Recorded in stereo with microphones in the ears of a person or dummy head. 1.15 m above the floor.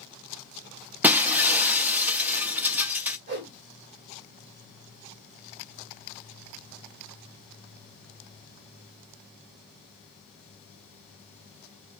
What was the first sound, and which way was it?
Breaking glass, 10° right (ahead or behind).